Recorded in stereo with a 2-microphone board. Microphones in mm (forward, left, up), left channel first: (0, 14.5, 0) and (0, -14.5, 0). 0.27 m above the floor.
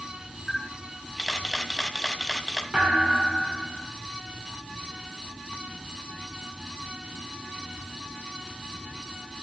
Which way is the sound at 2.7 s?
30° right (ahead or behind).